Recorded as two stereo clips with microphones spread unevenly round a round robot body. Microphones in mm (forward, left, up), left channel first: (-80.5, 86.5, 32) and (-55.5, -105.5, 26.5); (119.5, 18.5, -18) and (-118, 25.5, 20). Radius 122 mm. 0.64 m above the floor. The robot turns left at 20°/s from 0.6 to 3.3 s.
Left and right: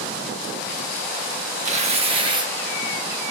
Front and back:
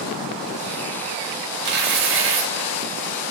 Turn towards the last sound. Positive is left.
turn(degrees=-165)